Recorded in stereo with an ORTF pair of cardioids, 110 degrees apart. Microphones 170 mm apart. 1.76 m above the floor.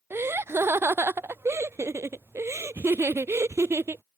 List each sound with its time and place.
0.1 s laughter: 15° right